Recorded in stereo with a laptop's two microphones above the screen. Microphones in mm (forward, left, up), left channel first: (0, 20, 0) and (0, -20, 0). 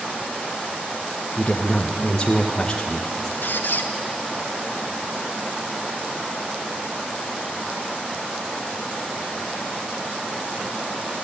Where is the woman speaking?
20° left (ahead or behind), 0.8 m.